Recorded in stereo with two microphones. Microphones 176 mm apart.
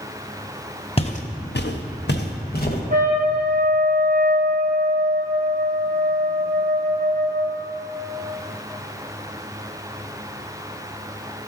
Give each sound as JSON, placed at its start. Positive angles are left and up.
{"t": 1.0, "sound": "footsteps", "side_deg": 35, "distance_m": 1.1}
{"t": 2.9, "sound": "a trumpet", "side_deg": -55, "distance_m": 1.4}